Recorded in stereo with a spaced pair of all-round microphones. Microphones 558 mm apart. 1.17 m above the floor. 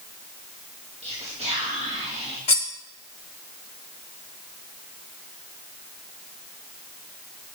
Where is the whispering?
10° right (ahead or behind), 1.8 m.